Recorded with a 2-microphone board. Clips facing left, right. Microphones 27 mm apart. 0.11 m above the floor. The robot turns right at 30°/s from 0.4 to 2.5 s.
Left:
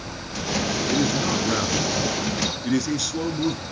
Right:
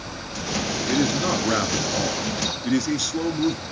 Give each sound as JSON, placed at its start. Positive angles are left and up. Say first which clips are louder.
{"t": 0.9, "sound": "a man speaking", "louder": "right 2 dB", "side_deg": -20, "distance_m": 1.2}